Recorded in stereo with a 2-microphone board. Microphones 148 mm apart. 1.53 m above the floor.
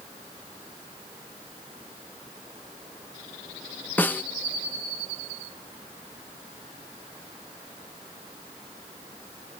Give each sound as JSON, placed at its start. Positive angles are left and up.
{"t": 4.0, "sound": "a snare drum", "side_deg": 10}